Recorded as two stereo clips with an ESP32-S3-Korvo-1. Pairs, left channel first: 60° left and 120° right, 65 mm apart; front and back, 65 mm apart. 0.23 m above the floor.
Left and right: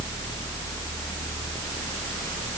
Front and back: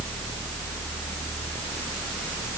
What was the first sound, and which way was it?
Only background noise.